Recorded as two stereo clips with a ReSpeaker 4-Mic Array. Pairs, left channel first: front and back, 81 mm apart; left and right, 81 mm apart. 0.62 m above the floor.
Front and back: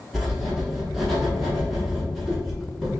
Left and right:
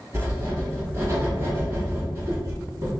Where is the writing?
90° right, 1.1 m.